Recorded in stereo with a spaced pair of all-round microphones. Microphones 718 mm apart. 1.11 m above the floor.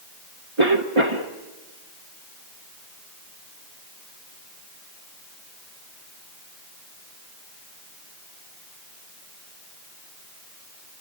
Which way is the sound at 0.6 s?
40° right (ahead or behind).